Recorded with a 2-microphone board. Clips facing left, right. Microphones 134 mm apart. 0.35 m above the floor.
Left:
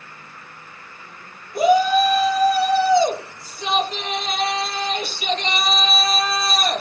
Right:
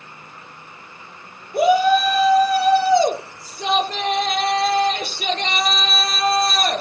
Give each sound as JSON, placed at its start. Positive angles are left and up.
{"t": 1.5, "sound": "a shout", "side_deg": -65, "distance_m": 8.5}